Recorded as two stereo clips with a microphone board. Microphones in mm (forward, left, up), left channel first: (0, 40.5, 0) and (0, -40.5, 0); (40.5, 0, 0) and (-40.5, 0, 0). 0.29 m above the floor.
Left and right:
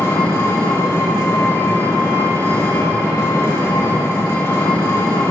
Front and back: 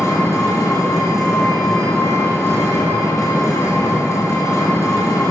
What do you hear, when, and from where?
0.0 s an engine running: 40° left, 2 m